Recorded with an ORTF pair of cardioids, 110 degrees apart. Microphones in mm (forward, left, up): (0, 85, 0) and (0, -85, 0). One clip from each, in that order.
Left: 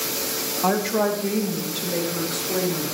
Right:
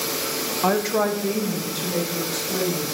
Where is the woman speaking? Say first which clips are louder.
Right 1 dB; 15° right, 0.9 m; by 2.9 s 10° left, 2.5 m.